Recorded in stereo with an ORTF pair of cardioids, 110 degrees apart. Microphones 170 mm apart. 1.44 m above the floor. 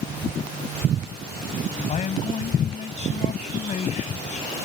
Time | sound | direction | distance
1.9 | a man speaking | 45° left | ?